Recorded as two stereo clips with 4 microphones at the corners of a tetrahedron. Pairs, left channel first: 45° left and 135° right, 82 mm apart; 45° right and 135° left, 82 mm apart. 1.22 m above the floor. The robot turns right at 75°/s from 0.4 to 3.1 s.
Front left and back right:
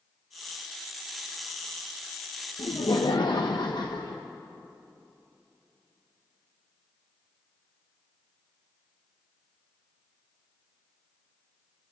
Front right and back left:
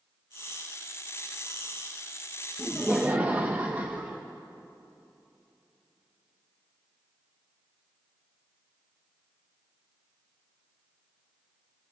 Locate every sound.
2.6 s laughter: 30° left, 0.9 m; by 4.2 s 70° left, 0.9 m